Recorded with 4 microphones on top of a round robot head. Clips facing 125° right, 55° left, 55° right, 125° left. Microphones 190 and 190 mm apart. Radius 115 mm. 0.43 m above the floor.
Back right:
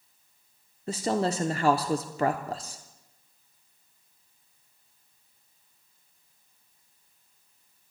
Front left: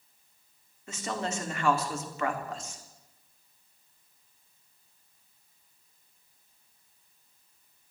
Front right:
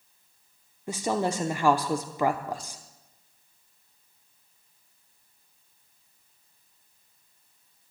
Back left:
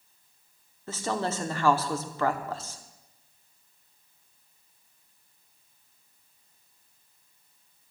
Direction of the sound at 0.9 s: 120° right.